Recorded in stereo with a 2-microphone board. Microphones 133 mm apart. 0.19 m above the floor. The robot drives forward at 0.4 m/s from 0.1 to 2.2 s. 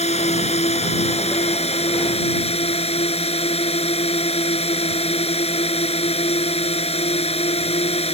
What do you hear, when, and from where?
0.0 s a drone: 55° left (ahead or behind); by 8.1 s 50° left (ahead or behind)